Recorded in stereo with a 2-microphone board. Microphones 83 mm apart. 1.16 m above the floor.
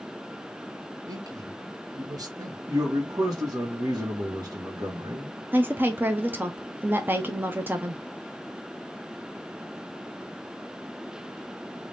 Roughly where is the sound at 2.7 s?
Right.